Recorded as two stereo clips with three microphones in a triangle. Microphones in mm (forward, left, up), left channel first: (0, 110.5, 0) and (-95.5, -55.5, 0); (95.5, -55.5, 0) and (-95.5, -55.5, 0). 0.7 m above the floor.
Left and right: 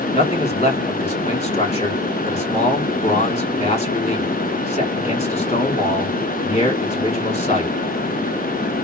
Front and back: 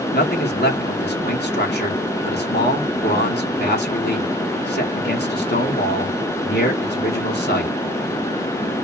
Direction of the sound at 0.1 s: 10° left.